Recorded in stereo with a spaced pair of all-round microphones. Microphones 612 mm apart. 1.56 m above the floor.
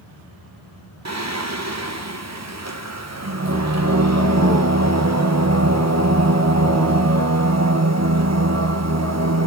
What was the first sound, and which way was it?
Singing, 25° right (ahead or behind).